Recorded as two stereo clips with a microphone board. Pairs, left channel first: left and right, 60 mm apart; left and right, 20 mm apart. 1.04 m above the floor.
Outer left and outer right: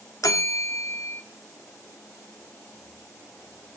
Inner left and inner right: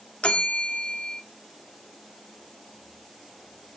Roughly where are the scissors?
I don't hear scissors.